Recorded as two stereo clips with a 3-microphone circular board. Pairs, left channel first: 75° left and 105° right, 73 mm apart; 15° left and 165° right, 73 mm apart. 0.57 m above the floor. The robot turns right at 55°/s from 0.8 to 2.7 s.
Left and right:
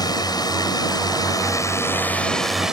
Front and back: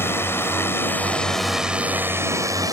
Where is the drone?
70° left; by 2.7 s 175° left.